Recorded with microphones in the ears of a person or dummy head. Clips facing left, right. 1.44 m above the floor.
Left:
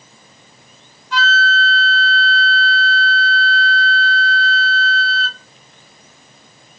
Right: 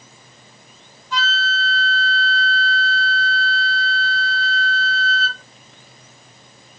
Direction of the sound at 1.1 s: 55° left (ahead or behind).